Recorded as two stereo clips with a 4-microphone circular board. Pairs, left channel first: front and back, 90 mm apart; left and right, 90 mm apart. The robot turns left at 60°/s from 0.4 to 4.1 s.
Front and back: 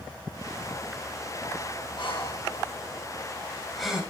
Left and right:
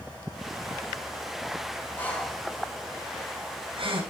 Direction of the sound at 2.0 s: 20° left.